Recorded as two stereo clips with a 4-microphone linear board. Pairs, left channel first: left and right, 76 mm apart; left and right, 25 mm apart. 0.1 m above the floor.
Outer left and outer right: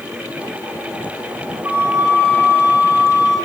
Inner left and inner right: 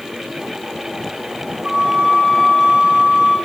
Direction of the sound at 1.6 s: 35° right (ahead or behind).